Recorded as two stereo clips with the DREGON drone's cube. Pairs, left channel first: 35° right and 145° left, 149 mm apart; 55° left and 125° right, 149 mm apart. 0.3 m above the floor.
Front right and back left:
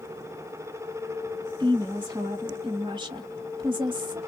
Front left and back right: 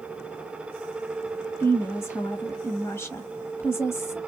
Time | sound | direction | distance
1.6 | a woman speaking | 120° left | 1.1 m